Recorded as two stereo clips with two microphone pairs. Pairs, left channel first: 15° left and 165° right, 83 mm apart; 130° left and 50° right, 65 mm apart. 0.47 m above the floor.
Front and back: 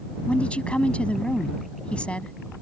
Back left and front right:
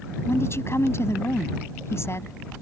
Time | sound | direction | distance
0.3 | a woman speaking | 90° left | ?